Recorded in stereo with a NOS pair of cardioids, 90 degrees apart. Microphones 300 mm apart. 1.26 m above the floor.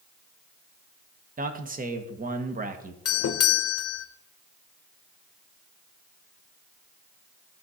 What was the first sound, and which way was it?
A man speaking, 30° right.